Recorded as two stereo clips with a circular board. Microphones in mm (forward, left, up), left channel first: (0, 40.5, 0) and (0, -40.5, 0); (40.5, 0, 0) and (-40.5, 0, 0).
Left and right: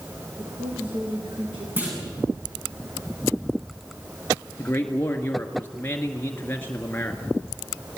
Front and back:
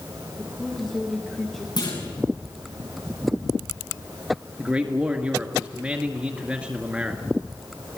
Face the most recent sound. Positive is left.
turn(degrees=120)